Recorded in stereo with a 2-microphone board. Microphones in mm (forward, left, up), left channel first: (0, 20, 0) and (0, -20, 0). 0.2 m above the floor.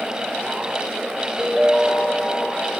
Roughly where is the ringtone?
Centre.